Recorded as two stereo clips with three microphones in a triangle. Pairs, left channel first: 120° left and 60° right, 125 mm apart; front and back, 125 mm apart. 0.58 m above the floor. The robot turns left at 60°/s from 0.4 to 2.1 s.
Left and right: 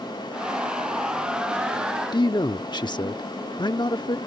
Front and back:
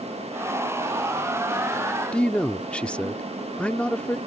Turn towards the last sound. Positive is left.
turn(degrees=75)